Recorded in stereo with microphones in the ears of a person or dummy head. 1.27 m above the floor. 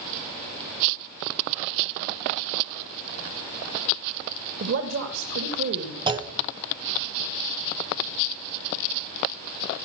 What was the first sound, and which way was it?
A woman speaking, 65° right (ahead or behind).